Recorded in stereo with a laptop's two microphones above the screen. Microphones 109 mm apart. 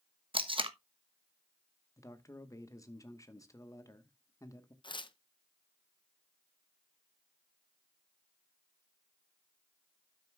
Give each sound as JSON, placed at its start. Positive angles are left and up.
{"t": 0.3, "sound": "tape being pulled", "side_deg": -55, "distance_m": 1.1}
{"t": 2.0, "sound": "a man speaking", "side_deg": 30, "distance_m": 1.1}
{"t": 4.8, "sound": "tearing paper", "side_deg": 45, "distance_m": 0.6}